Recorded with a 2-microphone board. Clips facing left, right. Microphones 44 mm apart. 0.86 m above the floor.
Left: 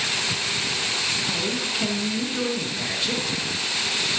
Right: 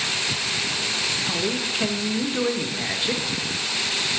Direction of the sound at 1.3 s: 15° right (ahead or behind).